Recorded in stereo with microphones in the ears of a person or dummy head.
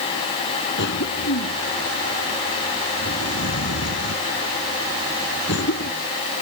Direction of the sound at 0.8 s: 65° left (ahead or behind).